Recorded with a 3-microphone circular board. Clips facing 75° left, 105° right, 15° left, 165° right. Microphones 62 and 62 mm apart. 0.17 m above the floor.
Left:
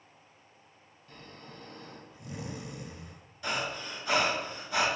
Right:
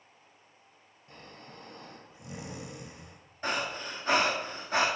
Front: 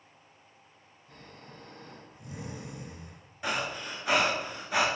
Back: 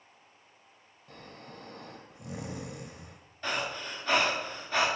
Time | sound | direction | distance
1.1 | snoring | 175° right | 0.8 m
3.4 | breathing | 60° right | 1.0 m